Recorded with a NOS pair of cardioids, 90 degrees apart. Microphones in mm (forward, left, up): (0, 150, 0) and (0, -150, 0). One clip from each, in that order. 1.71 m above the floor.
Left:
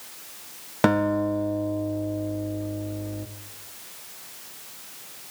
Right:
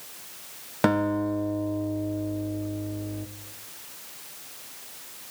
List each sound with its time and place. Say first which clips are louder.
0.8 s a guitar: left 2 dB; 10° left, 1.3 m